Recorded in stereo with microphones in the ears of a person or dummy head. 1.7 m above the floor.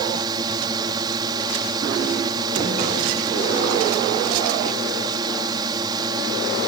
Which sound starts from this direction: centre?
A drone, at 0.0 s.